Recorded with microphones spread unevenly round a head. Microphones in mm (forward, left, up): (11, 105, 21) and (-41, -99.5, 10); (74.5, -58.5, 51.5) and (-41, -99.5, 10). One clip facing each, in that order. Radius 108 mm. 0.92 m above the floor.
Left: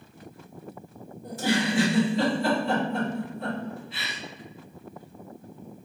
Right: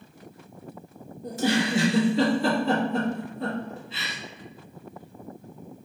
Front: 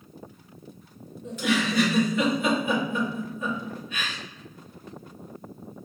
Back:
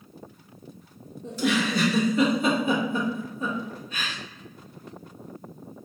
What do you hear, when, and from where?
1.2 s a giggle: 115° right, 1.3 m